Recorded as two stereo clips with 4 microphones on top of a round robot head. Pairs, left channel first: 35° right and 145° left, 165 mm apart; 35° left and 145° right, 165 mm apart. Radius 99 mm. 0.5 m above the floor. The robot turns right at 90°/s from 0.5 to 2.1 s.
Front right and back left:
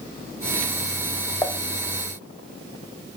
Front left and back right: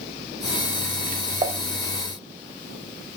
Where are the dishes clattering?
105° right, 0.6 m; by 1.6 s 90° right, 0.6 m.